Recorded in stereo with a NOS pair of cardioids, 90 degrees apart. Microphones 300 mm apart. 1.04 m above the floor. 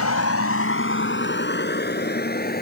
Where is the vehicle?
60° left; by 2.6 s 30° left.